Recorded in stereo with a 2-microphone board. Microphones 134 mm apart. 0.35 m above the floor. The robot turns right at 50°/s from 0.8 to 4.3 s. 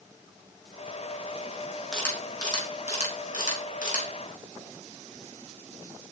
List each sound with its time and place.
1.9 s a camera shutter: 5° left (ahead or behind), 5.5 m; by 4.0 s 70° left (ahead or behind), 5.5 m